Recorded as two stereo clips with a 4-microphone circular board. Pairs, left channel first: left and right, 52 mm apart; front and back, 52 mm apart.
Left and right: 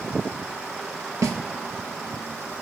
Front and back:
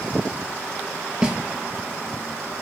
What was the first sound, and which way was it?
A snare drum, 110° right.